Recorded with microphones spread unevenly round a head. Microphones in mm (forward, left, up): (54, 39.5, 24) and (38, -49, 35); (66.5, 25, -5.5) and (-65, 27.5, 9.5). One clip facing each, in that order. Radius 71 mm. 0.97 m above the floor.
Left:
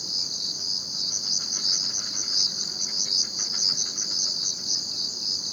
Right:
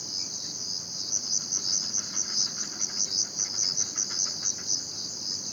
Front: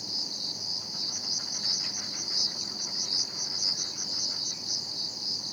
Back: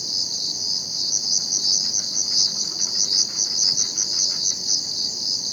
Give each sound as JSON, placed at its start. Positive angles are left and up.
{"t": 0.0, "sound": "an insect", "azimuth_deg": 145}